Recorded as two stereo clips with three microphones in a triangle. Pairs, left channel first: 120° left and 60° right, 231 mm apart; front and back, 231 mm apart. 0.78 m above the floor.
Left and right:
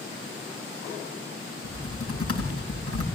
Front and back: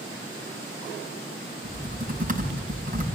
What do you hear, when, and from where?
1.6 s typing on a keyboard: 125° left, 6.5 m